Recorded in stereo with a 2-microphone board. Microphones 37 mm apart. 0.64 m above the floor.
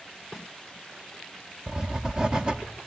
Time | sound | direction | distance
1.7 | writing | 20° right (ahead or behind) | 0.6 m